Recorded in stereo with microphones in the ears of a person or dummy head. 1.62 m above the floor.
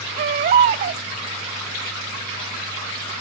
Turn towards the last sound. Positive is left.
turn(degrees=-35)  # may be behind; listen again after turning